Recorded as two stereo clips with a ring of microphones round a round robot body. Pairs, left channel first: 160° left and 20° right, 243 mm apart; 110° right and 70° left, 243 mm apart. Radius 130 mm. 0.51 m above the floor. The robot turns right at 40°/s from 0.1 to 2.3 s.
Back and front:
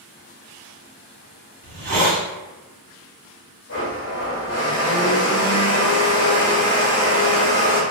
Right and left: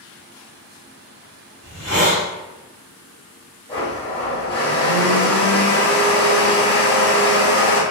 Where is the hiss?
5° left, 1.8 m; by 2.2 s 30° left, 1.8 m.